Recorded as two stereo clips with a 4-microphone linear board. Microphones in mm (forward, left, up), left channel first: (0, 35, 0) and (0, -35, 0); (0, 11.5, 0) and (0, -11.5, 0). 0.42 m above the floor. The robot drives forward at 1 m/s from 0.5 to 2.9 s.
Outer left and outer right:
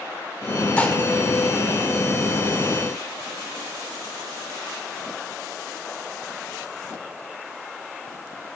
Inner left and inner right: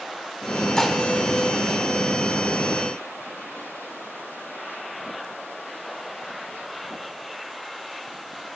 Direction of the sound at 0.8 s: 20° left (ahead or behind).